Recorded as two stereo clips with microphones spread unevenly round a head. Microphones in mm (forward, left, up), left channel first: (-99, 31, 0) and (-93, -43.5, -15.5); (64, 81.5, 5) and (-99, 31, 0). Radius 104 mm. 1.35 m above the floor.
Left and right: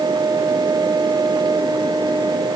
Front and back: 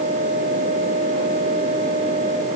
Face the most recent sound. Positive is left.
No sound to turn to.